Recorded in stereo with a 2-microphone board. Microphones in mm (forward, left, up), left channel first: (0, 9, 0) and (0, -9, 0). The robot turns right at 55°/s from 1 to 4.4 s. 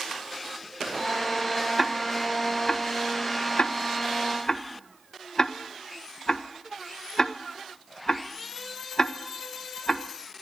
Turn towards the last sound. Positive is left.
turn(degrees=40)  # may be behind; listen again after turning